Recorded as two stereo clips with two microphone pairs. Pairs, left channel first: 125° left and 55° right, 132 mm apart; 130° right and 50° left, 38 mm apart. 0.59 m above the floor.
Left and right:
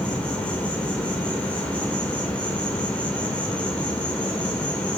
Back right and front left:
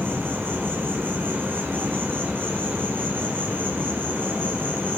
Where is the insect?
45° left, 1.7 m.